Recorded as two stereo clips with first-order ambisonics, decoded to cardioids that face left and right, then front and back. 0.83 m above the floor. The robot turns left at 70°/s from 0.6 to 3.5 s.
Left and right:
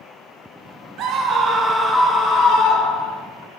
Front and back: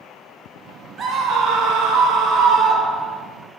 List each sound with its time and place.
1.0 s a scream: 125° right, 0.6 m; by 3.2 s 80° left, 0.6 m